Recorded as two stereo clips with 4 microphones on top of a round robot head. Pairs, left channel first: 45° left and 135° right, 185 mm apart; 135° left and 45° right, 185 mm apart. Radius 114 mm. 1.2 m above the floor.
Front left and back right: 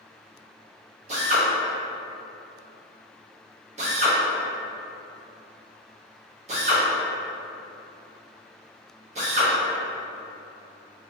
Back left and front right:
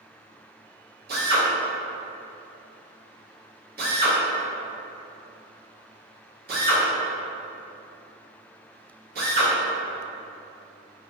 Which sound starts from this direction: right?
A drill, at 1.1 s.